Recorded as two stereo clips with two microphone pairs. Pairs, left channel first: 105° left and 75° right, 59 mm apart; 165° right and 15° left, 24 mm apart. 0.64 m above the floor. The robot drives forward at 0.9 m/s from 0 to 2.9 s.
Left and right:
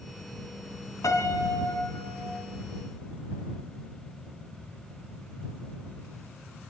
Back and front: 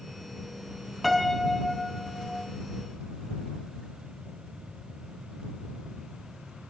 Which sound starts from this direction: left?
A piano, at 1.0 s.